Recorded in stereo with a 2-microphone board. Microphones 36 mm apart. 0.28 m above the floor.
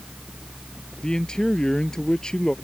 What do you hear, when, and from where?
1.0 s a man speaking: 20° left (ahead or behind)